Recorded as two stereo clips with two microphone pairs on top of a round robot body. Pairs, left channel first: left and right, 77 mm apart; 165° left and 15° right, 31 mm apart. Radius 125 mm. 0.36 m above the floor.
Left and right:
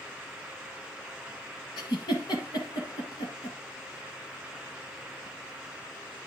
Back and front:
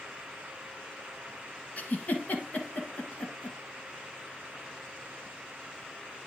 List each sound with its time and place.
1.8 s a giggle: 125° left, 1.5 m